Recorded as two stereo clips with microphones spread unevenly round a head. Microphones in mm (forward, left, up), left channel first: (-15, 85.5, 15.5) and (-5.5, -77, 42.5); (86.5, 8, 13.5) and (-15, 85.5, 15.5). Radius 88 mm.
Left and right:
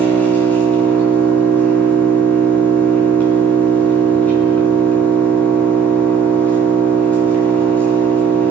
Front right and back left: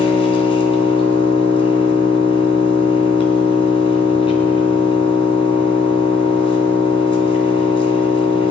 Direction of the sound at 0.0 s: 10° left.